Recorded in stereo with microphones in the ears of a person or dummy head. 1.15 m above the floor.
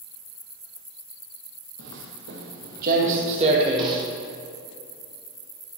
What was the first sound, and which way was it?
Footsteps, 65° right (ahead or behind).